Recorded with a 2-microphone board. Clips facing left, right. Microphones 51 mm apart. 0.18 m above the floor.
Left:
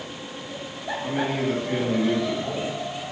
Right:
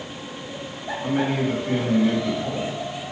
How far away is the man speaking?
About 4 m.